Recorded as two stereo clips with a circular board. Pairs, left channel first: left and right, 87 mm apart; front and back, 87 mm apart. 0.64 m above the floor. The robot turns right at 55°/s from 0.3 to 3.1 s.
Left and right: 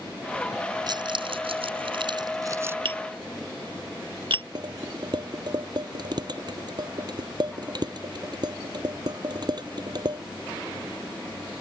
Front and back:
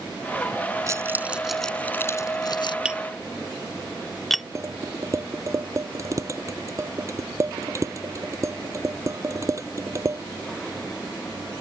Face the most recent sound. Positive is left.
turn(degrees=-130)